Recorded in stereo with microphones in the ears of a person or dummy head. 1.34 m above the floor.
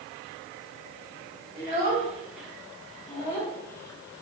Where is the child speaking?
5° right (ahead or behind), 0.9 m; by 4.2 s 20° left (ahead or behind), 0.8 m.